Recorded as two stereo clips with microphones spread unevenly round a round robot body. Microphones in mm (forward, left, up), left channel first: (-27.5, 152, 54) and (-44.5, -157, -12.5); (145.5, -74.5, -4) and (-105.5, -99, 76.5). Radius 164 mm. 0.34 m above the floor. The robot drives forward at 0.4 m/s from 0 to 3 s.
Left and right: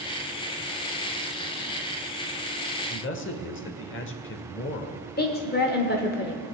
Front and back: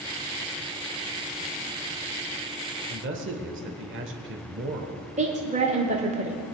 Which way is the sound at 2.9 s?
135° left.